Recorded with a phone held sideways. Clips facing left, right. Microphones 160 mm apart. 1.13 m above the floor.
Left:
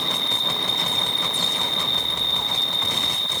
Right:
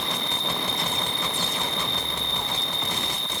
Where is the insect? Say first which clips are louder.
Even; 40° right (ahead or behind).